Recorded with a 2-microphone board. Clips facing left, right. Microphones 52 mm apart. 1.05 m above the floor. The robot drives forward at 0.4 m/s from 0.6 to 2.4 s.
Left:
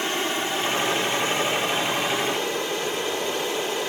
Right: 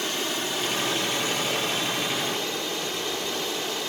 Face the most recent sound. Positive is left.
turn(degrees=15)  # may be behind; listen again after turning